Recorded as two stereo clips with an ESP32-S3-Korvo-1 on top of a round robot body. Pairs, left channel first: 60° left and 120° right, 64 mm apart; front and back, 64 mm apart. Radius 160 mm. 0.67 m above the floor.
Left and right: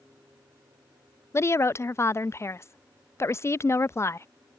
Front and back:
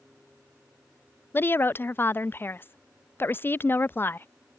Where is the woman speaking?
40° left.